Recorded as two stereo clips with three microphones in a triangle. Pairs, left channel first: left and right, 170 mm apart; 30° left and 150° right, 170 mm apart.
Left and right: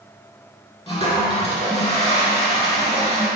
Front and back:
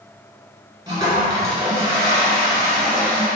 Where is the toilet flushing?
145° left, 1.4 m.